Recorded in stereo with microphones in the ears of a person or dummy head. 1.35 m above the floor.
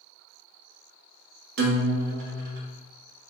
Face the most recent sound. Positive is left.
turn(degrees=-50)  # may be behind; listen again after turning